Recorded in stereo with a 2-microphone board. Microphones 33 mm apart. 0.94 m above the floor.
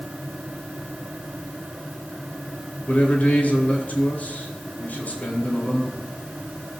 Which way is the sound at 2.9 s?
50° left (ahead or behind).